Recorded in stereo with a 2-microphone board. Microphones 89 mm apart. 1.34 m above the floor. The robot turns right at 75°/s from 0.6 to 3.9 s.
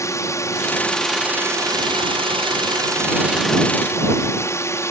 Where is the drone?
145° left; by 4.9 s 35° left.